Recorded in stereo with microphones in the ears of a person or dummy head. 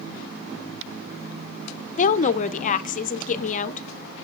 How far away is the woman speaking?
About 0.5 m.